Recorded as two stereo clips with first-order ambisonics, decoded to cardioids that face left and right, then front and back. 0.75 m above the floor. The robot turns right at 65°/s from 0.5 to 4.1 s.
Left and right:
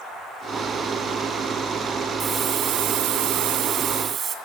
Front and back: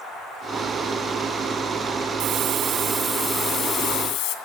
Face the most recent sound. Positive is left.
turn(degrees=-30)